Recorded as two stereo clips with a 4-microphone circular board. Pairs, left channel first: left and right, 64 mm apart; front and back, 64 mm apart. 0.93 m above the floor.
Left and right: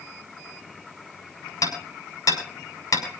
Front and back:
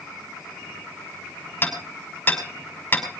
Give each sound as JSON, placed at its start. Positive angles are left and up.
{"t": 1.6, "sound": "hammering", "azimuth_deg": 60, "distance_m": 6.0}